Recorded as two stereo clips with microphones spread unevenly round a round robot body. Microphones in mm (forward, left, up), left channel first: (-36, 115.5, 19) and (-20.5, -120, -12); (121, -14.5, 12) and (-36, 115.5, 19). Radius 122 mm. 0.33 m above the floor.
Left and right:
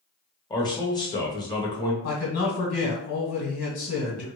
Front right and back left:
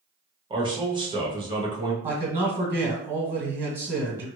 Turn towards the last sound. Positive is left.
turn(degrees=70)